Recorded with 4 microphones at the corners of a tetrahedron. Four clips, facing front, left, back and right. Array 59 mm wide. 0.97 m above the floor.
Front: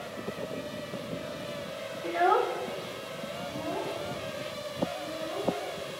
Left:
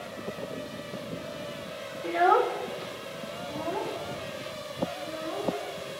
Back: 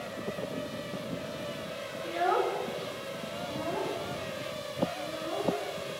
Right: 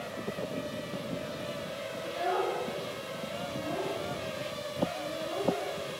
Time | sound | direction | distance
2.0 | a child speaking | 60° left | 0.8 m